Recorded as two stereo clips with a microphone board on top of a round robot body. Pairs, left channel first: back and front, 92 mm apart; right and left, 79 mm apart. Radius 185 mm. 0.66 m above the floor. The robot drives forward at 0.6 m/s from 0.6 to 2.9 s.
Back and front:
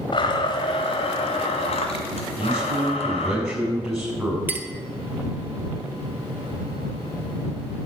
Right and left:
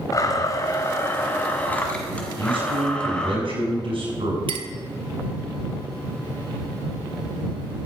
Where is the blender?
140° right, 0.7 m; by 3.4 s 170° right, 1.9 m.